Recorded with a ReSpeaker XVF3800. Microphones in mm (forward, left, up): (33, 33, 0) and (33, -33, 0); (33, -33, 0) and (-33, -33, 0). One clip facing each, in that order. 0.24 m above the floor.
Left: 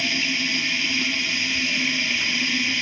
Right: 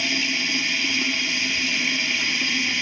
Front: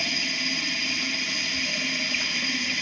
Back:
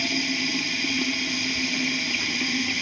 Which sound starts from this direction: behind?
Running water, at 0.0 s.